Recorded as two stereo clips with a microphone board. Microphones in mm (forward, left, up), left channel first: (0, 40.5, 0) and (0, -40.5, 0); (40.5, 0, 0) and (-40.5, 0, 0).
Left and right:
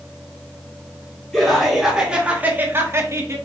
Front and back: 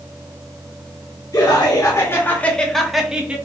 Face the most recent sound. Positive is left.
turn(degrees=-115)